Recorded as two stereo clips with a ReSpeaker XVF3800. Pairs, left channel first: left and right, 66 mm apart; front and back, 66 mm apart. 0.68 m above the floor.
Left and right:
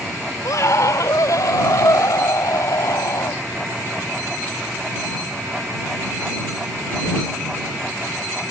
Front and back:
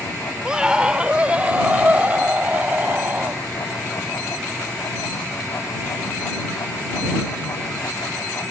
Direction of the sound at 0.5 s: 105° left.